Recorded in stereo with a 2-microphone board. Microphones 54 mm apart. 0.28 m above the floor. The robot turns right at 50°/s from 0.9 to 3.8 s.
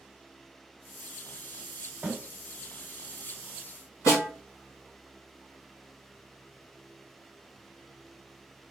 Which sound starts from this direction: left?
A snare drum, at 4.1 s.